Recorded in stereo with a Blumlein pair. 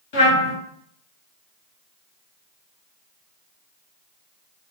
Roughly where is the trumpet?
Ahead left.